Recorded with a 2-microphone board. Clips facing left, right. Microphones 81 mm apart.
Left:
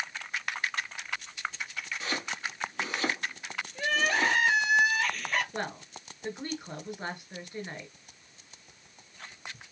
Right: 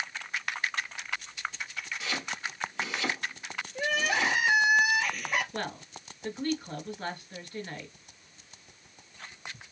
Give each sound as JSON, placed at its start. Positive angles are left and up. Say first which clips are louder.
{"t": 2.0, "sound": "chopping", "louder": "left 1 dB", "side_deg": 30, "distance_m": 2.5}
{"t": 3.8, "sound": "crying", "louder": "left 1 dB", "side_deg": -10, "distance_m": 1.4}
{"t": 5.5, "sound": "a woman speaking", "louder": "even", "side_deg": 15, "distance_m": 2.5}